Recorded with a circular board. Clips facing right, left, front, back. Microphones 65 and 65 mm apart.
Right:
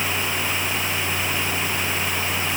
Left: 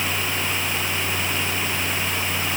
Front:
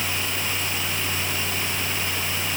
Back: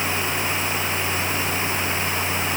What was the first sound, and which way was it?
Only background noise.